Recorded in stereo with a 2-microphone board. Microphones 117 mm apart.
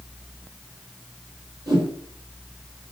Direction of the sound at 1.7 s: 30° right (ahead or behind).